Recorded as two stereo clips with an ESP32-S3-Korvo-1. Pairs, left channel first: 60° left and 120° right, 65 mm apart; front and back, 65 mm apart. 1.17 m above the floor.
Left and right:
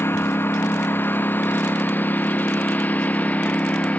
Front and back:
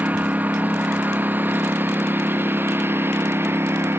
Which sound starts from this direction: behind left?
A lawn mower, at 0.0 s.